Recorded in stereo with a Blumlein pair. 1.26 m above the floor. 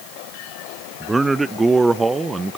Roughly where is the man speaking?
Ahead.